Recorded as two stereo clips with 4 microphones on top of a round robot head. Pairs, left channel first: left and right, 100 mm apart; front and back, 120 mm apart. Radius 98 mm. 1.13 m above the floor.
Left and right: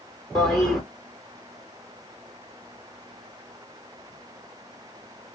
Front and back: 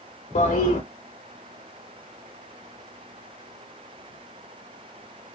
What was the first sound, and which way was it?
A toilet flushing, straight ahead.